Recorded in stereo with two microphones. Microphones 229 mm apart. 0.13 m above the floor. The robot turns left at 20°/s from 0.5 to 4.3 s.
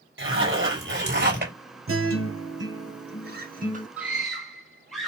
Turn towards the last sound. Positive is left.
turn(degrees=0)  # may be behind; listen again after turning